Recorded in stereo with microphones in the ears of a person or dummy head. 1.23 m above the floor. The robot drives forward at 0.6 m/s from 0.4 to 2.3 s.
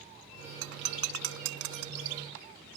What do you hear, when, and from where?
0.6 s breaking glass: 80° right; by 2.1 s 75° right (ahead or behind)